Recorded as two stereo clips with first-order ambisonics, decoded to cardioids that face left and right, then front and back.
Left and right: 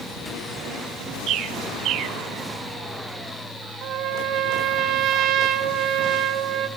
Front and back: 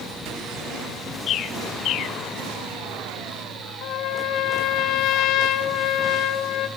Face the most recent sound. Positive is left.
turn(degrees=-40)